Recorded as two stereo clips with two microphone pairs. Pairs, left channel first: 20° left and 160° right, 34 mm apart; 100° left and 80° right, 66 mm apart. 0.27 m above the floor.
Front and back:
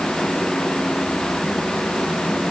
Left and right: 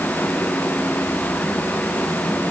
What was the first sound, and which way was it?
Only background noise.